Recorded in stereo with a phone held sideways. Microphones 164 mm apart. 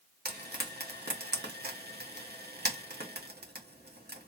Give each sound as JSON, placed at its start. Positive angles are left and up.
{"t": 0.2, "sound": "frying", "side_deg": -80, "distance_m": 1.3}